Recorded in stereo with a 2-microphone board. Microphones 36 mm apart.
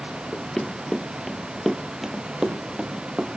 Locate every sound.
0.3 s running footsteps: 20° left (ahead or behind), 1.3 m; by 3.3 s 25° right (ahead or behind), 2 m